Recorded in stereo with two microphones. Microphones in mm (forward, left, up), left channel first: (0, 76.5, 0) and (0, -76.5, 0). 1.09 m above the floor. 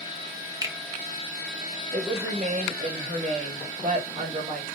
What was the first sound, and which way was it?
A finger snap, 20° right (ahead or behind).